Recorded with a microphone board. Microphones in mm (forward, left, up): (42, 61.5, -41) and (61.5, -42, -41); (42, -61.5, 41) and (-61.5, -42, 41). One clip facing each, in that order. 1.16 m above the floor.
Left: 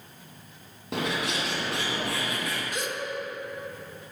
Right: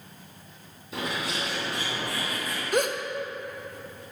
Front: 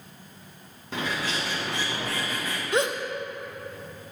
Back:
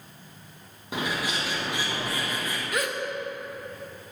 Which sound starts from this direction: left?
A bird, at 0.9 s.